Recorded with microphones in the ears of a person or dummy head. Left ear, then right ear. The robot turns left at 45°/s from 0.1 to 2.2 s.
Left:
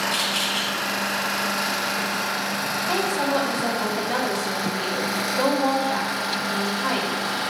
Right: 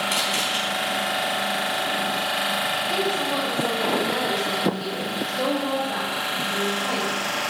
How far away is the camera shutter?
About 4.5 m.